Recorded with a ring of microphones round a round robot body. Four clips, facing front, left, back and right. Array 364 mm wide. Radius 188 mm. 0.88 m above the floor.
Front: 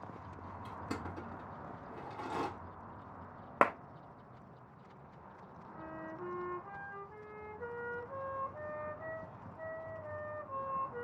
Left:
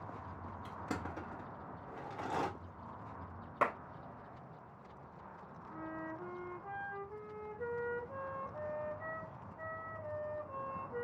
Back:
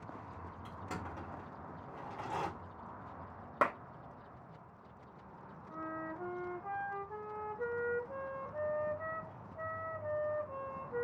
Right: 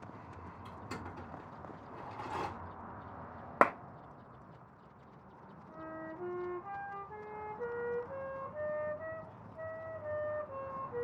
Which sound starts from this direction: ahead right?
A clap, at 3.6 s.